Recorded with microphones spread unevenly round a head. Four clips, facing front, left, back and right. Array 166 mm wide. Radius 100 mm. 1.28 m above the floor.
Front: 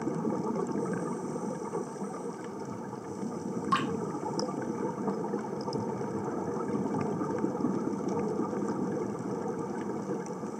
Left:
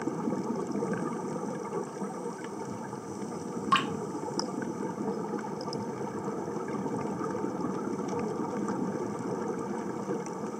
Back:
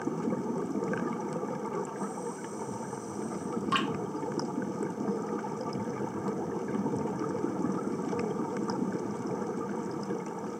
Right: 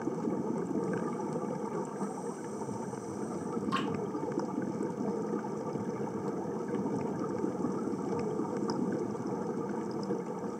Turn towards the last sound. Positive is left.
turn(degrees=100)